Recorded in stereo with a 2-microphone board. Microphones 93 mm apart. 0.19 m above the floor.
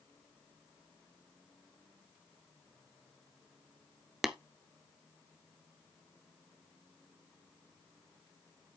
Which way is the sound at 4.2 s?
5° right (ahead or behind).